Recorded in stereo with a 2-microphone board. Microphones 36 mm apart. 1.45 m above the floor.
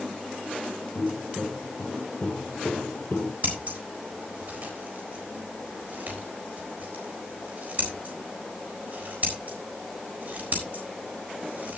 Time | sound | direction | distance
0.9 | footsteps | 60° left (ahead or behind) | 3 m
3.4 | scissors | 50° right (ahead or behind) | 4 m